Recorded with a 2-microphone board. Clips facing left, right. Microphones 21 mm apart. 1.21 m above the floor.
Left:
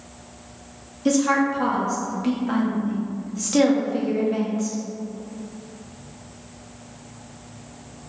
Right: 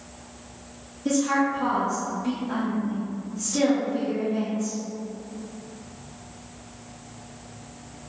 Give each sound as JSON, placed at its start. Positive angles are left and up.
{"t": 1.1, "sound": "a woman speaking", "side_deg": 50, "distance_m": 0.8}